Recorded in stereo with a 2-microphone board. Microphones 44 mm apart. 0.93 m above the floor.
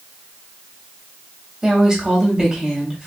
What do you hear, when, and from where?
1.6 s a woman speaking: 10° right (ahead or behind), 1.1 m